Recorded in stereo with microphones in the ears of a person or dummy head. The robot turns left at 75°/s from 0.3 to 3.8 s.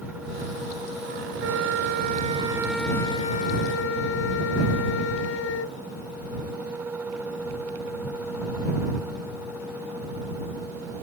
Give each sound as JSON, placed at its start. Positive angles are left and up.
{"t": 1.4, "sound": "a flute", "azimuth_deg": -80}